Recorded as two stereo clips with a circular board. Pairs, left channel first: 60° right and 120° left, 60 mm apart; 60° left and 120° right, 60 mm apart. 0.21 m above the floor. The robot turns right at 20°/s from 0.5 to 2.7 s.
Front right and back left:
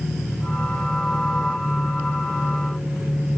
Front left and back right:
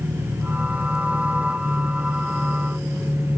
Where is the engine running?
80° right, 6 m; by 3.4 s 35° right, 6 m.